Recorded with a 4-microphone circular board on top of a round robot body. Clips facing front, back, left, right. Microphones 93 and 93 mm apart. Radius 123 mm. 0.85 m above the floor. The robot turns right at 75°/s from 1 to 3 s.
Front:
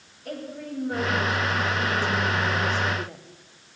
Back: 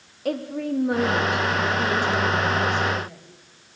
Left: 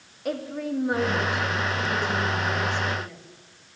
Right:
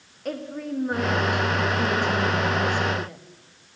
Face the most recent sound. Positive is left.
turn(degrees=-35)